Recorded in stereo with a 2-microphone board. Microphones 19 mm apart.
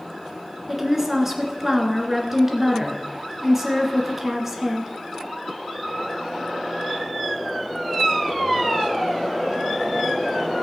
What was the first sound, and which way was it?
A woman speaking, 15° right (ahead or behind).